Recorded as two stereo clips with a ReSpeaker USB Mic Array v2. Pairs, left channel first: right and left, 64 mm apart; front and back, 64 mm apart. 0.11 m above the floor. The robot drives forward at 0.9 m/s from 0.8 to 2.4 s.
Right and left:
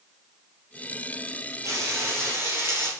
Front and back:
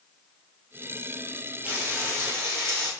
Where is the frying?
125° left, 1.6 m; by 2.9 s 140° left, 2 m.